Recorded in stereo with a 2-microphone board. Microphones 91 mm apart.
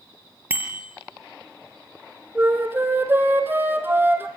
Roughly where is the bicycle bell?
Right.